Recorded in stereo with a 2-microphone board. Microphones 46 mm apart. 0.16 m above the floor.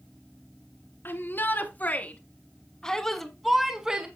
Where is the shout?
45° left (ahead or behind), 2 m; by 4.1 s 20° right (ahead or behind), 1.5 m.